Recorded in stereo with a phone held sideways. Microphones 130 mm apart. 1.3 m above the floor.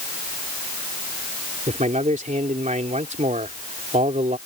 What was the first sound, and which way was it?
A man speaking, 70° right (ahead or behind).